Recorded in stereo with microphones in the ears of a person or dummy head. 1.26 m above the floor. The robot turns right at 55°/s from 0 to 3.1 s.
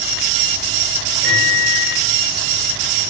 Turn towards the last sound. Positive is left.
turn(degrees=95)